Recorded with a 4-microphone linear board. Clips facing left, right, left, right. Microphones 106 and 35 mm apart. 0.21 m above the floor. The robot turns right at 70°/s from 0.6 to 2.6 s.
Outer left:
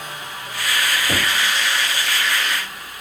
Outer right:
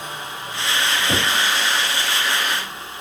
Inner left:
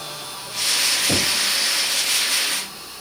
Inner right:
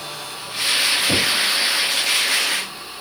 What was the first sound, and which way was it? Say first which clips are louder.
Knocking: outer right 2 dB, inner right 2 dB; 5° left (ahead or behind).